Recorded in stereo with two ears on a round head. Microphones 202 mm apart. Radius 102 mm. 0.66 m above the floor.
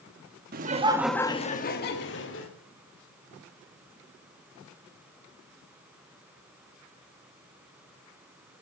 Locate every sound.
0.5 s laughter: 40° right (ahead or behind), 1.2 m; by 2.5 s 60° left (ahead or behind), 2.5 m